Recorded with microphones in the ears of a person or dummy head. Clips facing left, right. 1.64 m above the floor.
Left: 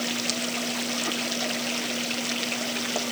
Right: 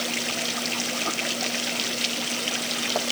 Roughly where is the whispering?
No whispering in this recording.